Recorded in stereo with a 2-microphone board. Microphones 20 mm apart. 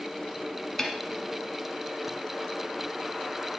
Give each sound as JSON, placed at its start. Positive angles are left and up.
{"t": 0.8, "sound": "a snare drum", "side_deg": 15, "distance_m": 1.1}